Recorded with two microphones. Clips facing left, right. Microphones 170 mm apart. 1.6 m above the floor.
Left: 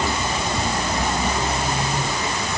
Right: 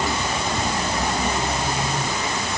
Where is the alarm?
No alarm in this recording.